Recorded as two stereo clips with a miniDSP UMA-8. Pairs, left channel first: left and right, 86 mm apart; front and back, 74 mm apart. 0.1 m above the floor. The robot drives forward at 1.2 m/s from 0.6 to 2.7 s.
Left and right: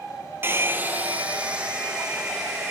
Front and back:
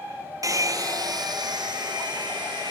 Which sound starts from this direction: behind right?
A hair dryer, at 0.4 s.